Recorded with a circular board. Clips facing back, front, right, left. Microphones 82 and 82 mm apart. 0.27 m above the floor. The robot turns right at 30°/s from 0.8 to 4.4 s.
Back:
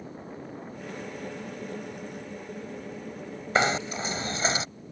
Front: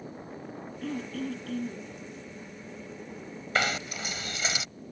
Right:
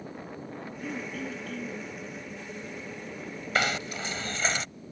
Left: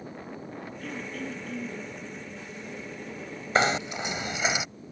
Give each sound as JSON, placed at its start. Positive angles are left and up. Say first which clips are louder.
{"t": 0.8, "sound": "throat clearing", "louder": "front 6 dB, right 1 dB", "azimuth_deg": -15}
{"t": 3.5, "sound": "knocking", "louder": "back 5 dB, left 4 dB", "azimuth_deg": 135}